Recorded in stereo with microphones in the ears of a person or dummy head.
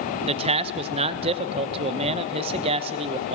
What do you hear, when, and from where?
0.3 s a man speaking: 30° right (ahead or behind), 0.9 m